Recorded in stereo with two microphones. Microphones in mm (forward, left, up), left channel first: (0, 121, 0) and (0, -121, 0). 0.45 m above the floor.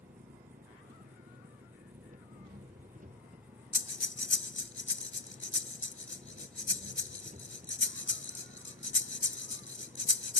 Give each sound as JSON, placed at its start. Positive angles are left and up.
{"t": 0.0, "sound": "an engine running", "side_deg": -35}
{"t": 3.7, "sound": "breathing", "side_deg": 55}